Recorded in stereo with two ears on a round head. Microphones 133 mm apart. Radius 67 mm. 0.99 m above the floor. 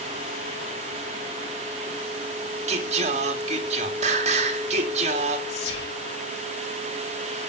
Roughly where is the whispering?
Left.